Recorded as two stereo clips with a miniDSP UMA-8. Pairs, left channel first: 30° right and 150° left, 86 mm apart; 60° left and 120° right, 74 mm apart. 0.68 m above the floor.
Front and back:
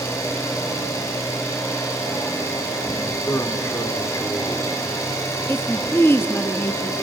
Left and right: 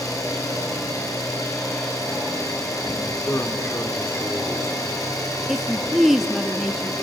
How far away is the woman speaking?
About 0.8 m.